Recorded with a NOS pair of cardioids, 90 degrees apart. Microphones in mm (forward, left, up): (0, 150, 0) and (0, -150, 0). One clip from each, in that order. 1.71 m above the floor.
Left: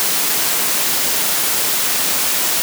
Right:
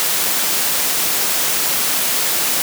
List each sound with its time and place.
Only background noise.